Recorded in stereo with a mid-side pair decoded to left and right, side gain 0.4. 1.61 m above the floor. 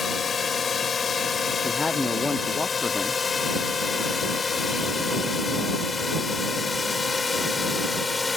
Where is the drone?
50° left; by 8.4 s 30° left.